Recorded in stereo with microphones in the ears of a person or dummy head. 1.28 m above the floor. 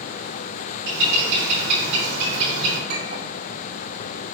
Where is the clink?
45° right (ahead or behind), 1.7 m.